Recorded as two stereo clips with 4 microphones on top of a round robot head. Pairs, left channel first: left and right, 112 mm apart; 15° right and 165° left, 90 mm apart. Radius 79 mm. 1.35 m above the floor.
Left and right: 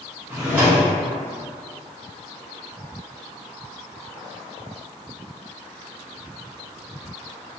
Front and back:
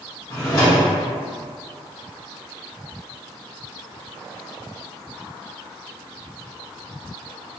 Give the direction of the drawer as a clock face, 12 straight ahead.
1 o'clock.